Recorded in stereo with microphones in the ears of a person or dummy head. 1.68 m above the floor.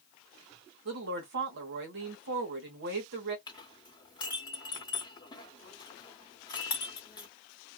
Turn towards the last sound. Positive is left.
turn(degrees=20)  # may be behind; listen again after turning